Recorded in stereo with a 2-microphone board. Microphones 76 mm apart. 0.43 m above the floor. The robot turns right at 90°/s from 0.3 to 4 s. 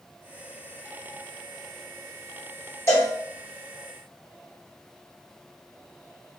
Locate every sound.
2.9 s a cowbell: 40° left (ahead or behind), 1.3 m; by 3.1 s 35° left (ahead or behind), 1.3 m